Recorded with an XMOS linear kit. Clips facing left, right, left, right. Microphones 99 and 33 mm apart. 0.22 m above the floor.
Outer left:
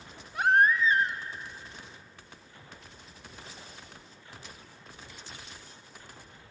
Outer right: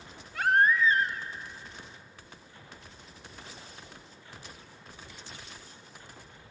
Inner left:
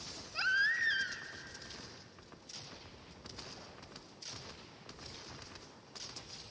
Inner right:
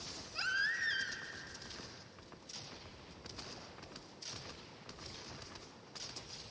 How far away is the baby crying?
About 0.8 m.